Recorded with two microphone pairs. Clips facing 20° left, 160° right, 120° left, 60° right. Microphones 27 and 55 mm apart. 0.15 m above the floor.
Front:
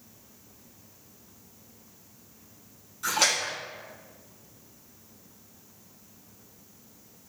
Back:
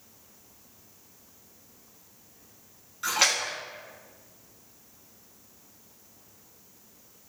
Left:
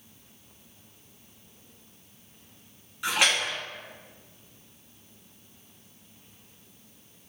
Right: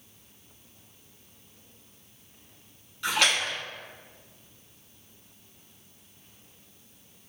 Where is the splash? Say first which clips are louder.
Even, even; straight behind, 1.1 m.